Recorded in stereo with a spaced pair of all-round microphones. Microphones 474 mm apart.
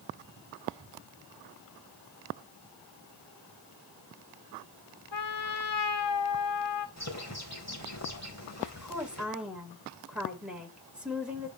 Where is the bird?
35° left (ahead or behind), 4.5 m.